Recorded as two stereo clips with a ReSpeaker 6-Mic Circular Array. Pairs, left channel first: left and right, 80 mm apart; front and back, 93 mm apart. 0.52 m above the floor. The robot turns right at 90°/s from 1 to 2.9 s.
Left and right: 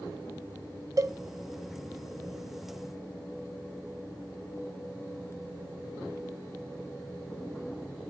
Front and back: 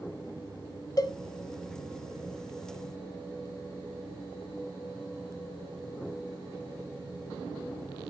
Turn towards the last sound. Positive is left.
turn(degrees=125)